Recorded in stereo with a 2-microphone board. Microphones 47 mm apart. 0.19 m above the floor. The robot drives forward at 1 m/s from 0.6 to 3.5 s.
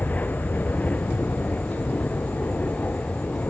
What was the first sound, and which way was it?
An aircraft, 35° left (ahead or behind).